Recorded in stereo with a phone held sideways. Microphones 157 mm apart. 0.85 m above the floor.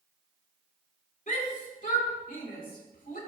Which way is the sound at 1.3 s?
55° left (ahead or behind).